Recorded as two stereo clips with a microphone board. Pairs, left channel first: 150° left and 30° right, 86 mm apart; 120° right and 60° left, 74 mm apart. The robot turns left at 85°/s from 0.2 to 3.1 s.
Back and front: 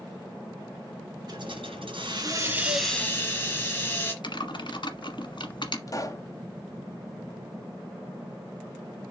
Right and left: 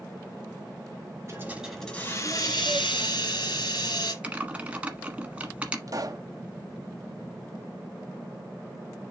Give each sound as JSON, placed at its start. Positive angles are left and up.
{"t": 1.3, "sound": "a hiss", "azimuth_deg": 5, "distance_m": 2.0}
{"t": 4.2, "sound": "typing on a keyboard", "azimuth_deg": 135, "distance_m": 1.2}
{"t": 5.9, "sound": "a pop", "azimuth_deg": 100, "distance_m": 1.0}